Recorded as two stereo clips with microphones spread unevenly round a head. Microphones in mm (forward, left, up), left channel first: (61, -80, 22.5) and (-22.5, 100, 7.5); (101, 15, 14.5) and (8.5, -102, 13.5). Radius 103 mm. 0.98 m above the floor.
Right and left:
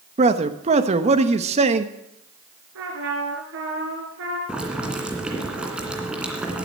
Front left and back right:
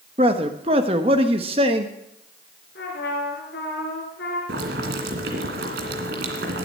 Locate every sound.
0.2 s a man speaking: 170° left, 1.1 m
2.8 s a trumpet: 95° left, 4 m
4.5 s boiling: 160° right, 2 m